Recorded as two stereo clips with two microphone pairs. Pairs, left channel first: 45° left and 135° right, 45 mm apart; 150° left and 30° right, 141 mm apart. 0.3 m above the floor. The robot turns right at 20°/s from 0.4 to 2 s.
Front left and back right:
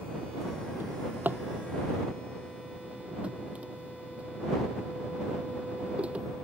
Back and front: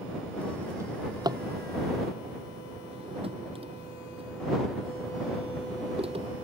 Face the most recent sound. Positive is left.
turn(degrees=-75)